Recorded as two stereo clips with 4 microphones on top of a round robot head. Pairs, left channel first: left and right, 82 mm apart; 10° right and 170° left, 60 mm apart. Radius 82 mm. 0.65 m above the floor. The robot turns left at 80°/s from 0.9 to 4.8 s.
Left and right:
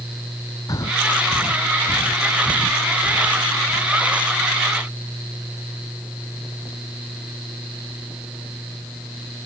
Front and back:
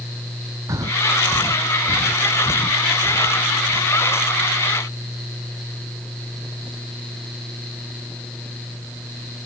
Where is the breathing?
135° left; by 3.9 s 105° right.